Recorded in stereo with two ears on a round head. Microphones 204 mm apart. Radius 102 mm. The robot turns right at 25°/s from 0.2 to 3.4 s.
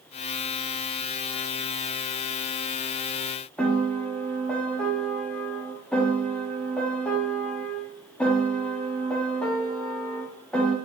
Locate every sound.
3.6 s a piano: 5° left (ahead or behind), 0.5 m